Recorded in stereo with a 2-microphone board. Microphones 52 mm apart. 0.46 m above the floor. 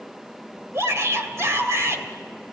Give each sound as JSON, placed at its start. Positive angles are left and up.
{"t": 0.7, "sound": "a shout", "side_deg": -55, "distance_m": 2.5}